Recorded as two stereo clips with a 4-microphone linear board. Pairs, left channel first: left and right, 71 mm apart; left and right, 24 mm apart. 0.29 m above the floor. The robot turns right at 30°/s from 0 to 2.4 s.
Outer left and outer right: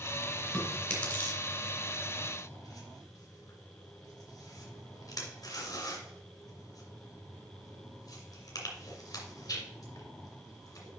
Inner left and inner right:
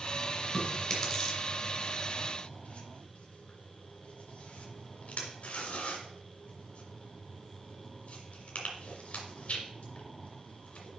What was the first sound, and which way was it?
Chewing, 5° left (ahead or behind).